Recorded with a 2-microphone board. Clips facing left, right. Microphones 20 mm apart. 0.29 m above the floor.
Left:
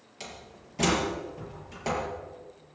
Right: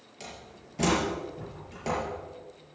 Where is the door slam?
15° left (ahead or behind), 5 m.